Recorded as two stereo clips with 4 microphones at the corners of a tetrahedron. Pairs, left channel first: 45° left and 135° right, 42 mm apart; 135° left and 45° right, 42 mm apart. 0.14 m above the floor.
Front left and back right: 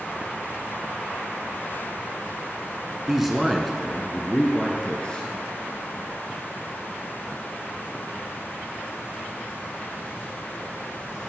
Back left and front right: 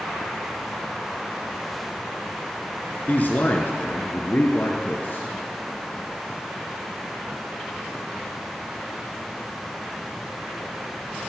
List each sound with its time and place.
3.1 s a man speaking: 150° left, 1.6 m; by 5.3 s 100° left, 2 m